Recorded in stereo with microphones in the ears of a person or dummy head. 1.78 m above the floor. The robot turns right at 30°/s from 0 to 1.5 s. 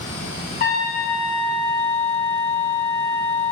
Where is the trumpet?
35° left (ahead or behind), 0.5 m; by 3.5 s 25° left (ahead or behind), 0.5 m.